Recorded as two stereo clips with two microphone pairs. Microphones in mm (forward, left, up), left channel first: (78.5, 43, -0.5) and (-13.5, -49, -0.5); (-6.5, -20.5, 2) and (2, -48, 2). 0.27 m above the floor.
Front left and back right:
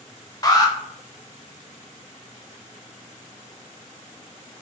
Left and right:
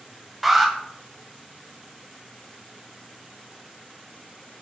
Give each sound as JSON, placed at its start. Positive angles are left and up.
{"t": 0.4, "sound": "an alarm", "azimuth_deg": 10, "distance_m": 0.9}